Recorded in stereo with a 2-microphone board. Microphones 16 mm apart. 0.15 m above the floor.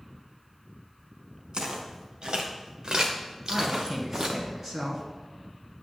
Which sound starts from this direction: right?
Footsteps, at 1.5 s.